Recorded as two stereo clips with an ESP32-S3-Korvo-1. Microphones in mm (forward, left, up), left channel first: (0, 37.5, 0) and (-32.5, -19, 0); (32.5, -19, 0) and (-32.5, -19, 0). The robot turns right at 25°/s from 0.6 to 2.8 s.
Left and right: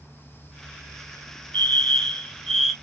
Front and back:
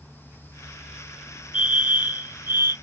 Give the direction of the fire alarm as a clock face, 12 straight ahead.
8 o'clock.